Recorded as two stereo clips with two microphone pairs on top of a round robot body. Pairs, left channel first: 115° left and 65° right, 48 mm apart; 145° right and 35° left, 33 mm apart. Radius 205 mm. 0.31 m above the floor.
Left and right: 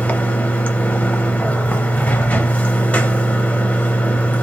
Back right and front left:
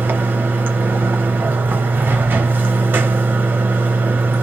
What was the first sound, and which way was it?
Running water, 55° left.